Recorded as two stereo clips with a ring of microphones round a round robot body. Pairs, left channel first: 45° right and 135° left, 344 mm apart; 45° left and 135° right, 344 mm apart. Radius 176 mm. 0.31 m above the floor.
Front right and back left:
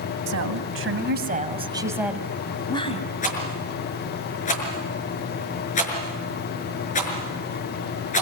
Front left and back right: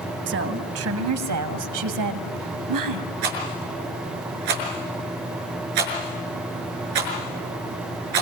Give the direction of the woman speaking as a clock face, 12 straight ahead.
6 o'clock.